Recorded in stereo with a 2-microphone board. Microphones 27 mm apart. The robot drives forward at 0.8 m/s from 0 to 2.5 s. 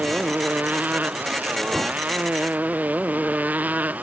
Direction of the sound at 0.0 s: 90° right.